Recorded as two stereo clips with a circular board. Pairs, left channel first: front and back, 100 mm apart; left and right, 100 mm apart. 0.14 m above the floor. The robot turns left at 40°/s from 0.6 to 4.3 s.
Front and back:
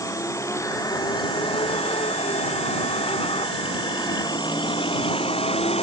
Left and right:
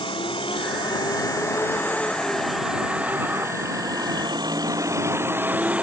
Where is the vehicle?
55° left; by 5.8 s 10° right.